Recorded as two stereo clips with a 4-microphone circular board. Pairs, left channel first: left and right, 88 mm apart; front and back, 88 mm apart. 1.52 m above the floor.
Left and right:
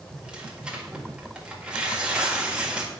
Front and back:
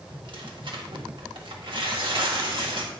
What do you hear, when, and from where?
0.1 s tearing paper: 170° right, 1.6 m